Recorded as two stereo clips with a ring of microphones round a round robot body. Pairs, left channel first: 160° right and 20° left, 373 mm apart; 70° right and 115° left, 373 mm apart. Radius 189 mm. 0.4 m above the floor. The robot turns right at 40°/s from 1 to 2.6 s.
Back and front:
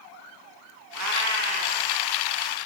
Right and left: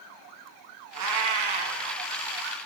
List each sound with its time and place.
0.9 s a cat meowing: 70° left, 1.3 m; by 1.8 s 105° left, 1.3 m